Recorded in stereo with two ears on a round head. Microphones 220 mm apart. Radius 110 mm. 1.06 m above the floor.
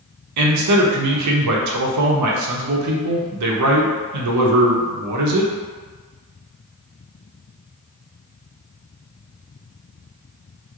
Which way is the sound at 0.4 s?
85° right.